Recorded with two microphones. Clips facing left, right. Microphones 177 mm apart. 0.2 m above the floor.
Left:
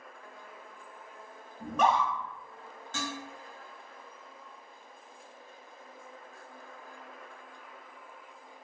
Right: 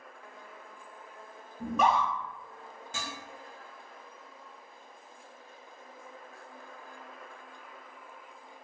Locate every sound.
1.6 s a scream: 5° right (ahead or behind), 1.2 m
2.9 s dishes clattering: 10° right (ahead or behind), 1.3 m